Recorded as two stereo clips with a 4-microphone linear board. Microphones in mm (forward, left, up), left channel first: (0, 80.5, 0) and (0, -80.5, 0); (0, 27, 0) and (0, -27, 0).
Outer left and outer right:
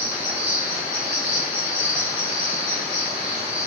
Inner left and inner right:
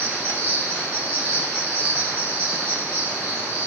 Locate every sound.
0.0 s an insect: 45° right (ahead or behind), 7.5 m